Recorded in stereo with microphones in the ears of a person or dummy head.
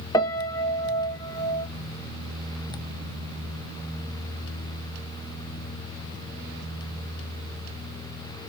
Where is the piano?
15° left (ahead or behind), 0.7 m.